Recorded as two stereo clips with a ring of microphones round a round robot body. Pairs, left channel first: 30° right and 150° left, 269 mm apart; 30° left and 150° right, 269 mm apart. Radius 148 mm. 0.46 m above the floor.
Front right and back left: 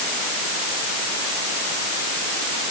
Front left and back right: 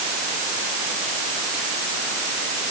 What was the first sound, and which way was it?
Only background noise.